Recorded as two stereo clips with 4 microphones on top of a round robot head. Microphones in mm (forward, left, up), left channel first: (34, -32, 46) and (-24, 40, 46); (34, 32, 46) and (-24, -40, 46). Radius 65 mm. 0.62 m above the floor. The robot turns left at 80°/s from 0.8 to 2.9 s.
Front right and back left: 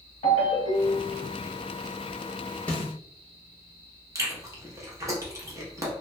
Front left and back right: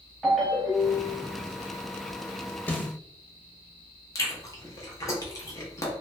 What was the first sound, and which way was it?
A ringtone, 40° right.